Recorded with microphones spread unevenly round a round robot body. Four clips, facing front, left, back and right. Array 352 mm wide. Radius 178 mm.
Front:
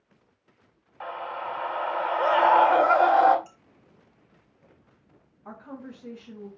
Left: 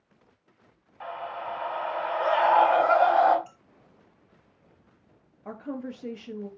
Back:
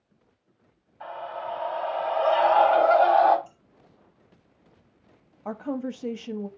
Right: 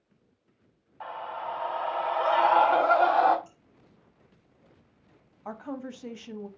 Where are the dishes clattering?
50° left, 5.5 m.